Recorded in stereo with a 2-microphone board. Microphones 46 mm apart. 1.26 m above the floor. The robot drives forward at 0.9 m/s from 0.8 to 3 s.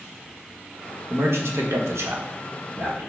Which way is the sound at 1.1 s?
65° right (ahead or behind).